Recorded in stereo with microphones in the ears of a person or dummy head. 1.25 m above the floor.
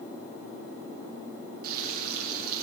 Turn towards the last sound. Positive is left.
turn(degrees=-50)  # may be behind; listen again after turning